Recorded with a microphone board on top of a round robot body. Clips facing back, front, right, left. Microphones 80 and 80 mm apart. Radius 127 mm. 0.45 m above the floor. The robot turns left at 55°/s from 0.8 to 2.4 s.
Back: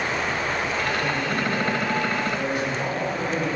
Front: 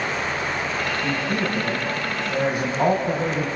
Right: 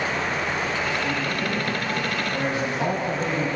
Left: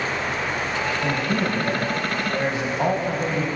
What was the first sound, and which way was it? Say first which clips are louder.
A man speaking: front 1 dB, left 3 dB; 100° left.